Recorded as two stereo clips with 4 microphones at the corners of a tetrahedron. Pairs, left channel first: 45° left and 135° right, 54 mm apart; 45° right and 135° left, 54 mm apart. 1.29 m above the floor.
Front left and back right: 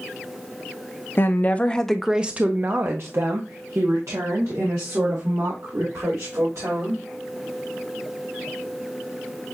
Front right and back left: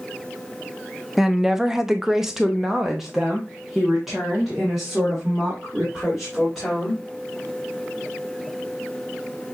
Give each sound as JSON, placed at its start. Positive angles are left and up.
{"t": 1.2, "sound": "a woman speaking", "azimuth_deg": 55, "distance_m": 0.6}